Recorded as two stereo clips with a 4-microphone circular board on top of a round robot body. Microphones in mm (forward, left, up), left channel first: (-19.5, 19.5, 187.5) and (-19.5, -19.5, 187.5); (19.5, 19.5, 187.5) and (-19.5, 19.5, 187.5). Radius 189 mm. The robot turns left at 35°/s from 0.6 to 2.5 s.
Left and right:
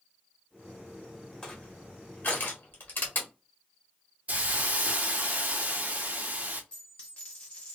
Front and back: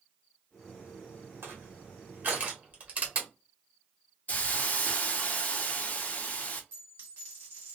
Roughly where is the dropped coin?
Behind left.